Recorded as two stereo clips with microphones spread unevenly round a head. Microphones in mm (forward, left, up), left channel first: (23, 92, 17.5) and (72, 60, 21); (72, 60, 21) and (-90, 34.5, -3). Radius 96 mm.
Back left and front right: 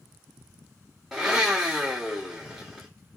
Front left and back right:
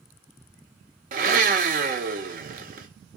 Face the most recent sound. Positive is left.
turn(degrees=-120)